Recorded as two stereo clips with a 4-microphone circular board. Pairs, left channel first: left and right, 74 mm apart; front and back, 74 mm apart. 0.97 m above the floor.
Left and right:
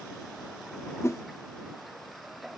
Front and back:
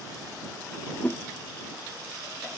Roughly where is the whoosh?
Ahead left.